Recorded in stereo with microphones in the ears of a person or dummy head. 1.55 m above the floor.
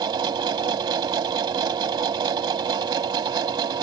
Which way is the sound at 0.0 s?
20° right (ahead or behind).